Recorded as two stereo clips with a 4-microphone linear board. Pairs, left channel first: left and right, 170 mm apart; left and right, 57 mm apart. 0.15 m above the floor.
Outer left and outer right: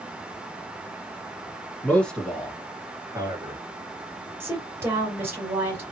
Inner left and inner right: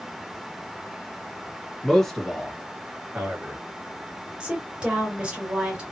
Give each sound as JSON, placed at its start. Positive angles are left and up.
{"t": 1.8, "sound": "a man speaking", "side_deg": 10, "distance_m": 1.5}
{"t": 4.4, "sound": "a woman speaking", "side_deg": -15, "distance_m": 2.5}